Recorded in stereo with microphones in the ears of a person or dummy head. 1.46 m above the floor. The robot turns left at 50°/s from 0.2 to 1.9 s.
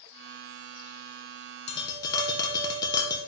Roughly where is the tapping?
Left.